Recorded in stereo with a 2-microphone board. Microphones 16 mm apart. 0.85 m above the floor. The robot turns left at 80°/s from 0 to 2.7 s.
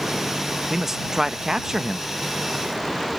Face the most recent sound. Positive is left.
turn(degrees=170)